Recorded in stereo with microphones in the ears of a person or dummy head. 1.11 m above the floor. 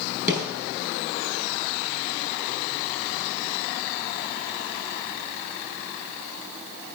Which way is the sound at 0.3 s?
10° right (ahead or behind).